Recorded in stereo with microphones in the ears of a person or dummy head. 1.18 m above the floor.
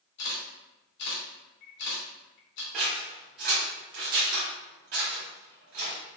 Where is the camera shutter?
70° left (ahead or behind), 1.5 m.